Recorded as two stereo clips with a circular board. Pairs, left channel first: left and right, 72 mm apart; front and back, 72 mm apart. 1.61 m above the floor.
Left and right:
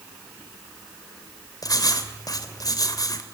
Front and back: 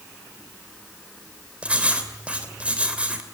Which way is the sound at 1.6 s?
110° left.